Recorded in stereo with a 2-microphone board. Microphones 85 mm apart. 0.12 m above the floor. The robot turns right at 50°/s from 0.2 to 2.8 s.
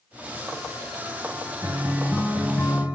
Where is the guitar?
25° right, 3 m; by 2.8 s 35° left, 3 m.